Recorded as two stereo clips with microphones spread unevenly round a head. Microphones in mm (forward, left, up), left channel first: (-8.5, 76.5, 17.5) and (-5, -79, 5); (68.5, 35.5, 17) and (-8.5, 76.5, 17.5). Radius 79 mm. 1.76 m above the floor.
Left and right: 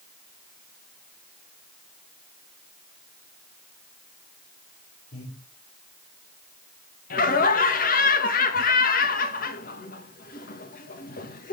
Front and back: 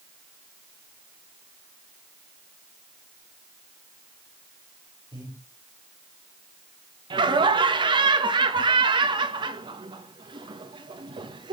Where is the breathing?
110° left, 8 m.